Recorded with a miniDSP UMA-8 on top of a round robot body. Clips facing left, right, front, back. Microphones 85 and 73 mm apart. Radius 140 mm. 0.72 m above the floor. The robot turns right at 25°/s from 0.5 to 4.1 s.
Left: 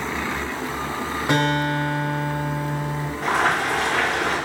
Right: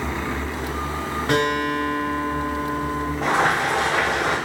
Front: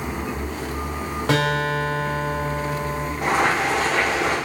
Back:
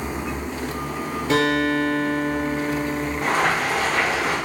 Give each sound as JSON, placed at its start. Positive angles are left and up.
{"t": 1.3, "sound": "a guitar", "azimuth_deg": 5, "distance_m": 0.8}
{"t": 3.2, "sound": "boiling", "azimuth_deg": -75, "distance_m": 1.3}